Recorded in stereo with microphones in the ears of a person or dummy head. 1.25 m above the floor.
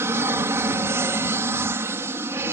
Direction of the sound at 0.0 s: 15° right (ahead or behind).